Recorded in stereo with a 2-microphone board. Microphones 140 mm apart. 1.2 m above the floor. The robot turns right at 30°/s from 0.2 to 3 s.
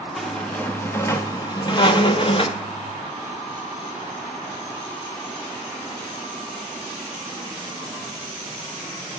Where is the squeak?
Straight ahead, 0.7 m; by 2.6 s 75° left, 0.7 m.